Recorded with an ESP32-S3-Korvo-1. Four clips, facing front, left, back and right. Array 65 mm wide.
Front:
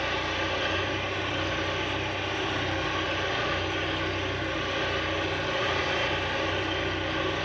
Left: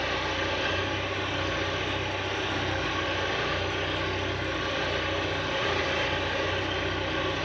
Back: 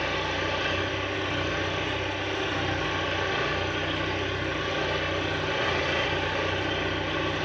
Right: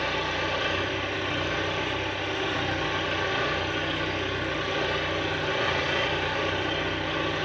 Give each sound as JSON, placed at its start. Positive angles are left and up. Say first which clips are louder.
{"t": 0.0, "sound": "an engine running", "louder": "right 1 dB, back 1 dB", "azimuth_deg": -140, "distance_m": 8.0}